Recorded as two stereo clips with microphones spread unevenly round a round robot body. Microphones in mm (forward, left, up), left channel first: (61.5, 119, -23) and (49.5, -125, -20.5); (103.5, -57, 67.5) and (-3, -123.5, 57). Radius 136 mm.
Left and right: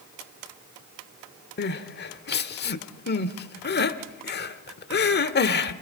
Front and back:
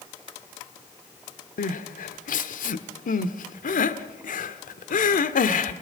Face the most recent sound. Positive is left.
turn(degrees=40)